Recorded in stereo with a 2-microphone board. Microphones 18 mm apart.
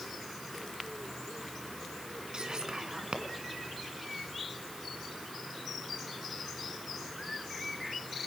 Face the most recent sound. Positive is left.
turn(degrees=-45)  # may be behind; listen again after turning